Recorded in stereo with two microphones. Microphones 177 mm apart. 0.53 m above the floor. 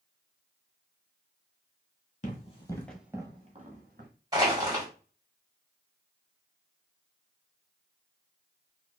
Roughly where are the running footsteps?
Left.